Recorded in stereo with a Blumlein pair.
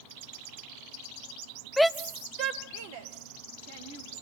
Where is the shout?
10° left, 0.6 m; by 4.1 s 60° right, 3.5 m.